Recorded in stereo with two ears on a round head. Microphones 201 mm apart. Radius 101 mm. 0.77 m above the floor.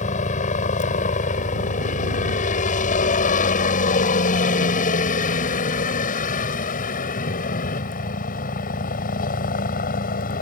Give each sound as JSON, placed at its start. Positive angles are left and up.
{"t": 0.0, "sound": "a helicopter", "side_deg": 35}